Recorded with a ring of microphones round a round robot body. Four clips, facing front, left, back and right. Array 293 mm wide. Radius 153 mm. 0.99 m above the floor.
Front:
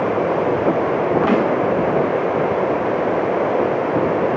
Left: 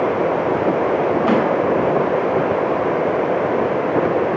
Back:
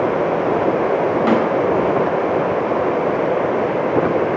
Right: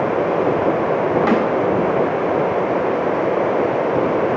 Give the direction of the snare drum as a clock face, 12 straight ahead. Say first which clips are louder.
Left 1 dB, back 3 dB; 4 o'clock.